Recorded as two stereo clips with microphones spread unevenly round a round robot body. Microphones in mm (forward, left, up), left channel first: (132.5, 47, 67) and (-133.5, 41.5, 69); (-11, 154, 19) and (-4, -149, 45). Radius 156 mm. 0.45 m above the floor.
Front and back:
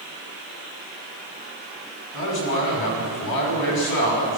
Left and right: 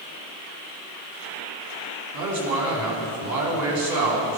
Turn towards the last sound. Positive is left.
turn(degrees=-50)